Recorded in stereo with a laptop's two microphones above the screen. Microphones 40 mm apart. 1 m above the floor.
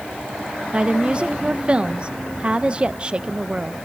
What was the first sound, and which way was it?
A woman speaking, 30° right (ahead or behind).